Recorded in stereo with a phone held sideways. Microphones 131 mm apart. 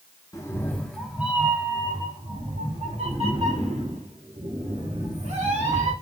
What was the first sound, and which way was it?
A cat meowing, 25° left (ahead or behind).